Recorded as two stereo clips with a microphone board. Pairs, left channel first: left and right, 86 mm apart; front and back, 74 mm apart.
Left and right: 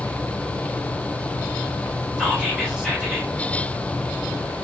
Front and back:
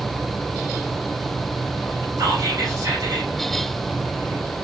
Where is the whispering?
170° right, 1.7 m.